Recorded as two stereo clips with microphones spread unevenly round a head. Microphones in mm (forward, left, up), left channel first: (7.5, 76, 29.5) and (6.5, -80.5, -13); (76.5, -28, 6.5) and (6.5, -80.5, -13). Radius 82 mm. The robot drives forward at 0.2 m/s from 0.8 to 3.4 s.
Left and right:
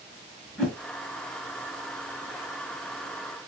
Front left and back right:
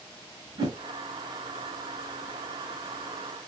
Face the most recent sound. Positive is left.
turn(degrees=-175)